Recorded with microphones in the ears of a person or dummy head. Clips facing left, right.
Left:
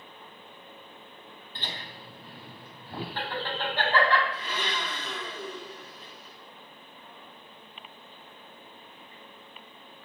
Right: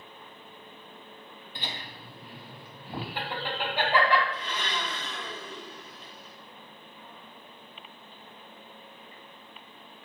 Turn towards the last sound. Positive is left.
turn(degrees=10)  # may be behind; listen again after turning